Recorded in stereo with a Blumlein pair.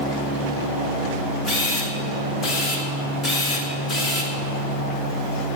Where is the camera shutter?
20° left, 2.5 m.